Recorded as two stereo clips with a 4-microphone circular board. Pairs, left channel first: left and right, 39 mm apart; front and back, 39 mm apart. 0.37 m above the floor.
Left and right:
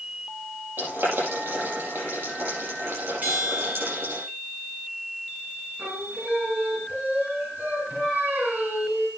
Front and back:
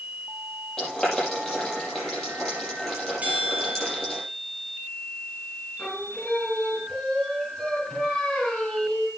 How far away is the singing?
About 3 m.